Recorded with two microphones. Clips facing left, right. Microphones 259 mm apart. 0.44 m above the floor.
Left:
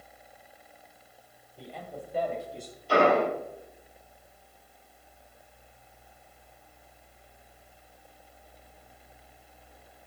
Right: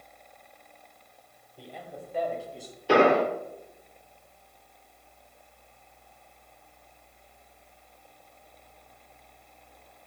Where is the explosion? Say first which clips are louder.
Right 3 dB; 80° right, 2.5 m.